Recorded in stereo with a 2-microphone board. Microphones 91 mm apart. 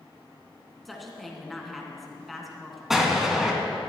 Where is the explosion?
5° right (ahead or behind), 1.9 m.